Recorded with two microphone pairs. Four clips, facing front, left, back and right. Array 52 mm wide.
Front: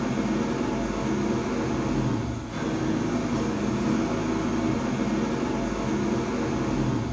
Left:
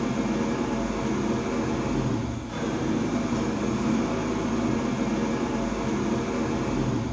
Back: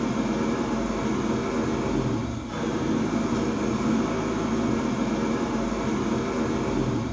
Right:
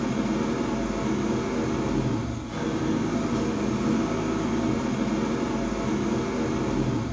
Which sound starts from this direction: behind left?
An engine running, at 0.0 s.